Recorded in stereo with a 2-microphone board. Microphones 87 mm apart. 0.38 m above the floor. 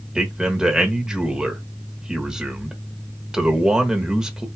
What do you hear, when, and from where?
0.1 s a man speaking: 5° right (ahead or behind), 1.2 m